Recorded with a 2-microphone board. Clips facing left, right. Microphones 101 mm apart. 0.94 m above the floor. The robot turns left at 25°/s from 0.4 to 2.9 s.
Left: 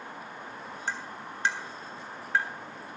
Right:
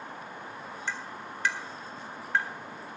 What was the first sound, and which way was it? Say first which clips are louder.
Tapping: left 2 dB; 40° left (ahead or behind).